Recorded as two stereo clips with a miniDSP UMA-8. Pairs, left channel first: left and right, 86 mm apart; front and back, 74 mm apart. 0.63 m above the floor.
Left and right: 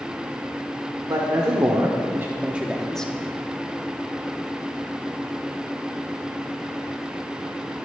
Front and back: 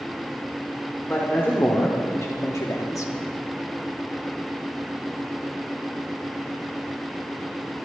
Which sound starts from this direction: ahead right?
A man speaking, at 1.1 s.